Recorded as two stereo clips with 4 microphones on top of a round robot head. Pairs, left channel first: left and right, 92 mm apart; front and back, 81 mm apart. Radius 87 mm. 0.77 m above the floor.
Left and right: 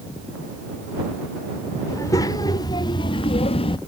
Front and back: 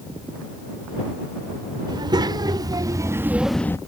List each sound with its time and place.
1.9 s a child speaking: 150° left; by 3.8 s 60° left